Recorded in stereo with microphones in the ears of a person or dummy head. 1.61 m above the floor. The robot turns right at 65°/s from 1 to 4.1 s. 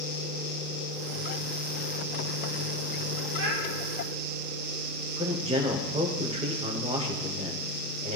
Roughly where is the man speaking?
Right.